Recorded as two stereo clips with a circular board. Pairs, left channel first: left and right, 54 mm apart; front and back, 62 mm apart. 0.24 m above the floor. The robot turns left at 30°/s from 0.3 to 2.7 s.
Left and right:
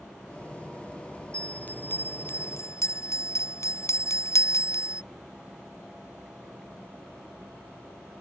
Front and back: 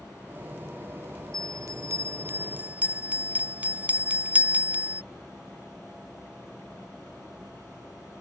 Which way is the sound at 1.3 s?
155° left.